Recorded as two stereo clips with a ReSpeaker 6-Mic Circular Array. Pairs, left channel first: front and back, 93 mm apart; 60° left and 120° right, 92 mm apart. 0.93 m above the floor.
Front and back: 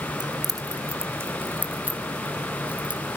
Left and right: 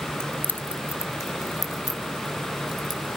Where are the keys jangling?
140° left, 0.7 m; by 3.2 s 105° left, 3 m.